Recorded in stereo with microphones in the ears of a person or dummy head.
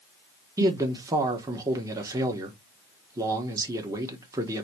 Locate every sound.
0.6 s a man speaking: 25° right (ahead or behind), 1.1 m